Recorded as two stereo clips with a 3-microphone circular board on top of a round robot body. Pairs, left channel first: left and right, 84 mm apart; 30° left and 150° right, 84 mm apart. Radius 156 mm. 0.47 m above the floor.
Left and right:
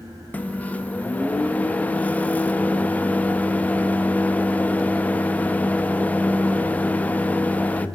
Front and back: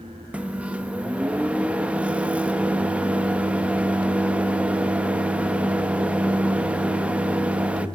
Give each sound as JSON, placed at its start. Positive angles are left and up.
{"t": 0.3, "sound": "a microwave", "azimuth_deg": 150, "distance_m": 0.5}